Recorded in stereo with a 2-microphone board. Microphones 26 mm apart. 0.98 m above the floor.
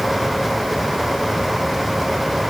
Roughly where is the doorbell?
No doorbell in this recording.